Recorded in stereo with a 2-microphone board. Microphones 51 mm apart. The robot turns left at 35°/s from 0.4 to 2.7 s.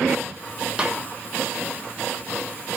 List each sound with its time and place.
0.8 s a snare drum: 20° right (ahead or behind), 1.0 m; by 1.0 s 25° right (ahead or behind), 1.0 m